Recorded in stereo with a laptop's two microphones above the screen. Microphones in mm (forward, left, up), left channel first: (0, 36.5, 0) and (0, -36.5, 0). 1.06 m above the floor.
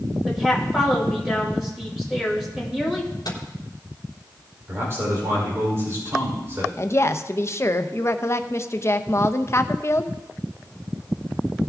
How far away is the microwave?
About 2 m.